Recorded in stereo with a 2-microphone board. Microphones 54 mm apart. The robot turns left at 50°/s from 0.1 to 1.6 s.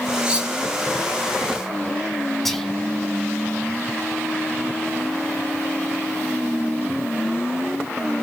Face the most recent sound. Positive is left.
turn(degrees=0)  # may be behind; listen again after turning